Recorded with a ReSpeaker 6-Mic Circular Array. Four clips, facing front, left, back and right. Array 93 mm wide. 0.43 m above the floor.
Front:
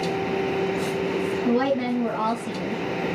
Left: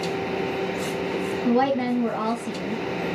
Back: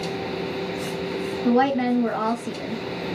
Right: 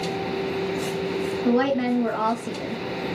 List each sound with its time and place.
1.4 s a woman speaking: 135° right, 1.5 m